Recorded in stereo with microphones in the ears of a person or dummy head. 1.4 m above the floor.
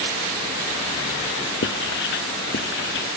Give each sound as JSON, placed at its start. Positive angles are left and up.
{"t": 1.6, "sound": "writing", "side_deg": 60, "distance_m": 0.6}